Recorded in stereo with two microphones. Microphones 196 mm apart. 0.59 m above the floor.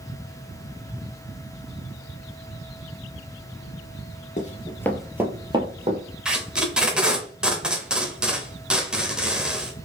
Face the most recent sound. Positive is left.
turn(degrees=-5)  # may be behind; listen again after turning